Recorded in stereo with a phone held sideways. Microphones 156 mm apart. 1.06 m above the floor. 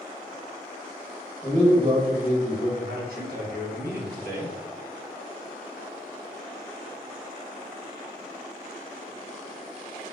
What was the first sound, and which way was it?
A man speaking, 10° left (ahead or behind).